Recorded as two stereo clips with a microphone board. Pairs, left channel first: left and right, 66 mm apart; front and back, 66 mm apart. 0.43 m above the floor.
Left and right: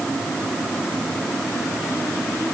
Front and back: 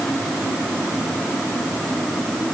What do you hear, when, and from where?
Only background noise.